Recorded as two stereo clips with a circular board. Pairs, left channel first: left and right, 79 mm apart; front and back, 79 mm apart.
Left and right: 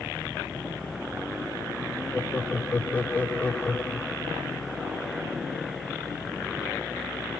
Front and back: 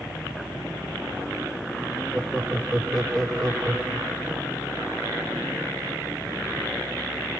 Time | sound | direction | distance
2.1 | laughter | 65° left | 1.0 m